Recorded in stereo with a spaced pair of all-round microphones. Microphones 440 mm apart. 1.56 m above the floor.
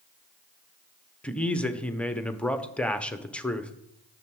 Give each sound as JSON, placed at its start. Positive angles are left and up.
{"t": 1.2, "sound": "a man speaking", "side_deg": 5, "distance_m": 0.8}